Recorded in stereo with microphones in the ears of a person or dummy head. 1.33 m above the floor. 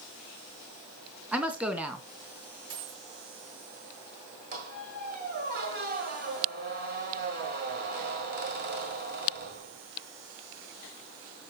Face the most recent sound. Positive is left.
turn(degrees=-40)  # may be behind; listen again after turning